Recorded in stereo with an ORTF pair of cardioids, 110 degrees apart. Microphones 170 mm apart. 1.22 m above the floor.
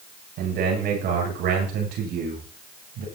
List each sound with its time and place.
0.4 s a man speaking: 65° right, 10 m; by 3.0 s 75° right, 11.5 m